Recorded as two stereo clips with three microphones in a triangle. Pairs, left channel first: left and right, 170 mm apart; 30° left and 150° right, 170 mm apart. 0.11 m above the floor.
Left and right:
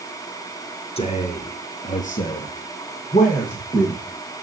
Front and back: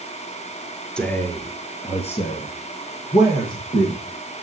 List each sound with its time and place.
1.0 s a man speaking: 110° left, 1.5 m; by 4.0 s 50° left, 3 m